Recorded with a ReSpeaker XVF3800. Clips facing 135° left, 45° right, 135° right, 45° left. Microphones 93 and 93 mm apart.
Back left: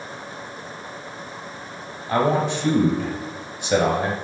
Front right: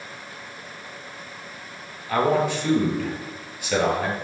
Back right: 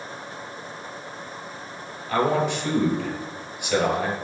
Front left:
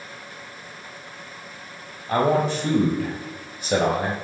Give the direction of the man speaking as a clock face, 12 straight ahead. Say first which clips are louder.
Back left 1 dB, front left 2 dB; 9 o'clock.